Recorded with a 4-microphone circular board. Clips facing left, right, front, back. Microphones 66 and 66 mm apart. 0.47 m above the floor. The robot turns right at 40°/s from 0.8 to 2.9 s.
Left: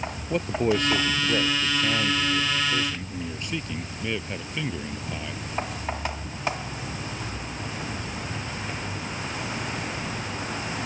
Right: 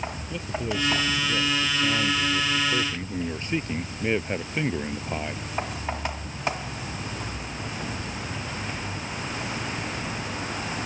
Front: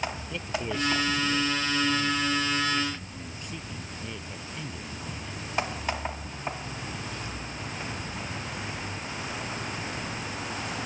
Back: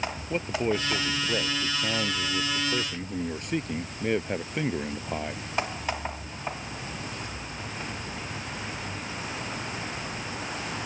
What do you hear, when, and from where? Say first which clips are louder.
0.3 s a man speaking: left 8 dB, back 9 dB; 125° left; by 5.4 s 150° right